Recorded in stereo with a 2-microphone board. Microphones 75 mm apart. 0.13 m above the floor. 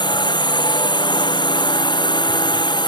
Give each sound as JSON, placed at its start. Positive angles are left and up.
{"t": 0.0, "sound": "a drone", "side_deg": 85}